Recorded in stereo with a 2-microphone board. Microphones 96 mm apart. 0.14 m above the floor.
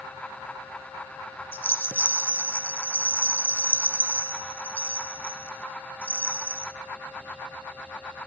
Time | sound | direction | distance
1.5 | a rattle | 20° left (ahead or behind) | 0.5 m